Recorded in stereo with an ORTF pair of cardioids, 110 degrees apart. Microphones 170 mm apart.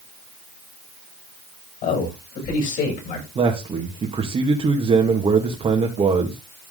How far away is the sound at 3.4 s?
About 2.5 m.